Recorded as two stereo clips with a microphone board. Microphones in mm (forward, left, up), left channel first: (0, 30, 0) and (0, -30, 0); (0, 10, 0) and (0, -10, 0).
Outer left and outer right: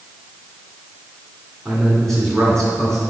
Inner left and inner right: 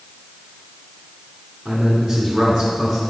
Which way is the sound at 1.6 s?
5° left (ahead or behind).